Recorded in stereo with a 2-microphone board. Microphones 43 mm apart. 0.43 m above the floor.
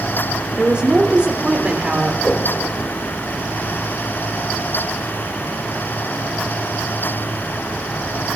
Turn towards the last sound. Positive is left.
turn(degrees=45)  # may be behind; listen again after turning